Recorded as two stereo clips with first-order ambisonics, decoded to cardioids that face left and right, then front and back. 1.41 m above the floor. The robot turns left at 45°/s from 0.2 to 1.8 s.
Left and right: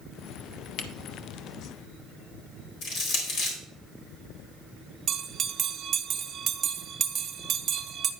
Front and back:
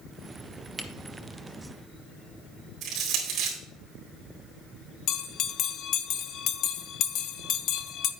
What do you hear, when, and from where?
0.8 s a camera shutter: 105° left, 1.0 m; by 0.9 s 100° left, 1.0 m
2.8 s crushing: 130° left, 4 m
5.1 s a bell: 35° right, 0.7 m